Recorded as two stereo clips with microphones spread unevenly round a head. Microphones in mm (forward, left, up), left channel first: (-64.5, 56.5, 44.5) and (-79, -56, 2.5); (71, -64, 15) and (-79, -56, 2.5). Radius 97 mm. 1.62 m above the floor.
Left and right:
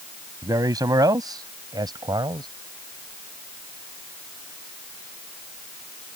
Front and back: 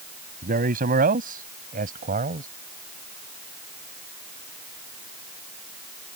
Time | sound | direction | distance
0.4 | a man speaking | 160° right | ?